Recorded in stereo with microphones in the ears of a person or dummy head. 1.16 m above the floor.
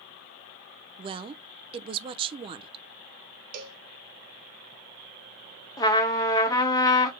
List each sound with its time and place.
1.0 s a woman speaking: 30° right (ahead or behind), 0.5 m
3.5 s a cowbell: 50° right (ahead or behind), 0.8 m
5.8 s a trumpet: 20° left (ahead or behind), 0.7 m